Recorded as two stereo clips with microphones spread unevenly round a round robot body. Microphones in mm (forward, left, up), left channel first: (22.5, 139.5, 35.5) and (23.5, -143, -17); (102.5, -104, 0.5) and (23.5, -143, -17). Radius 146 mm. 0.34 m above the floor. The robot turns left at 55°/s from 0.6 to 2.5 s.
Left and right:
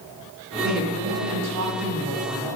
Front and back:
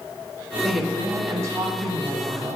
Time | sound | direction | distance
0.6 | a woman speaking | 65° right | 1.9 m